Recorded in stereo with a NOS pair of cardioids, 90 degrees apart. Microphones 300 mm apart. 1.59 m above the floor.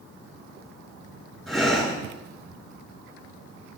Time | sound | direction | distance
1.5 | breathing | straight ahead | 5.5 m